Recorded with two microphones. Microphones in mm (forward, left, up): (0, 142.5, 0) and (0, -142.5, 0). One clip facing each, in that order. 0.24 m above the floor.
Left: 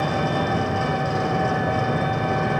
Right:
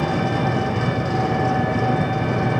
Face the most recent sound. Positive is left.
turn(degrees=-75)  # may be behind; listen again after turning